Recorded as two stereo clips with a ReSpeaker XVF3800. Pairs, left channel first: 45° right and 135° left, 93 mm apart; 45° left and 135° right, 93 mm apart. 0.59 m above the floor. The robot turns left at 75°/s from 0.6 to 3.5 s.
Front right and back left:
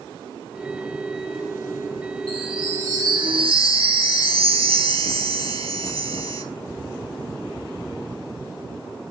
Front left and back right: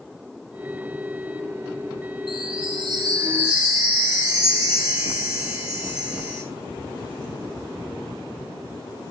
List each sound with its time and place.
2.3 s a chime: 125° right, 6.5 m; by 6.4 s 145° left, 6.5 m